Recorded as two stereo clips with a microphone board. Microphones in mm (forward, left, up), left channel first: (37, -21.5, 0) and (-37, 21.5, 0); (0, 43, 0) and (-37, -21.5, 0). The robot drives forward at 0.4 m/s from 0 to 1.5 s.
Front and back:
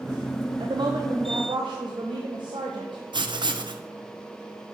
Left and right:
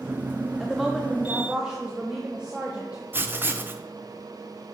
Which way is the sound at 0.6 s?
150° left.